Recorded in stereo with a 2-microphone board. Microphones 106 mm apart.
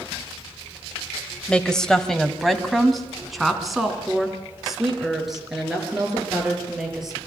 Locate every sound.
1.5 s a woman speaking: 10° left (ahead or behind), 1.0 m; by 7.2 s 5° right (ahead or behind), 6 m